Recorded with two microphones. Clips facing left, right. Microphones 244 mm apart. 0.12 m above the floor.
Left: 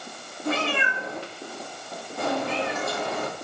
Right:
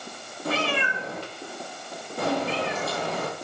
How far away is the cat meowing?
About 1.8 m.